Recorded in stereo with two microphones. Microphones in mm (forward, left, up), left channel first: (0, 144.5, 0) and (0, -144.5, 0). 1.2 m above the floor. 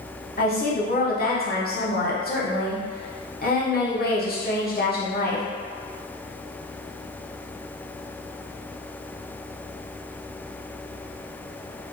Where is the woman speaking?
35° left (ahead or behind), 0.8 m.